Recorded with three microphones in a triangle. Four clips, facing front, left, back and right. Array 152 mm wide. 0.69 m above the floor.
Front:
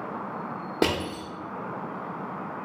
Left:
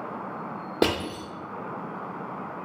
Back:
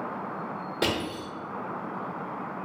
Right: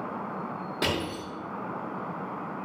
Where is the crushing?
60° left, 0.9 m.